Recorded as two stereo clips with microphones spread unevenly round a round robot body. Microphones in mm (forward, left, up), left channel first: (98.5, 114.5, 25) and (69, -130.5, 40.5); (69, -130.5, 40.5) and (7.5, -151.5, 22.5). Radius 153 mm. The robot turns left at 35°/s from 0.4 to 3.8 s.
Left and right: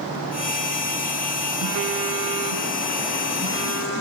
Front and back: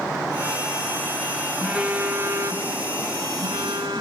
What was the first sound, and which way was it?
A phone buzzing, 80° right.